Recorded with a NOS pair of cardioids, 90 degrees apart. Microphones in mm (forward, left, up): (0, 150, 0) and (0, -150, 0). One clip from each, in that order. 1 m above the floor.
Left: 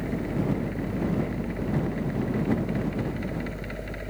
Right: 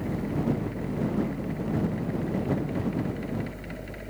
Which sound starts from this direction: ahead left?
A fan, at 0.0 s.